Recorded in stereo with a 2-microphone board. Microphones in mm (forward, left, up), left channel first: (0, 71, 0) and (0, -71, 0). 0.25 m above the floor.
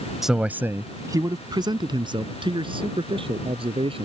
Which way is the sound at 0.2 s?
Centre (ahead or behind).